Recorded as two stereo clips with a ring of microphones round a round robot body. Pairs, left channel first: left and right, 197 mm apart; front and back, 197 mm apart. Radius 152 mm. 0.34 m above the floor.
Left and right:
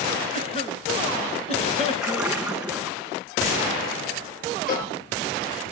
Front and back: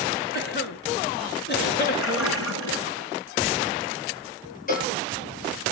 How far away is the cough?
About 4.5 m.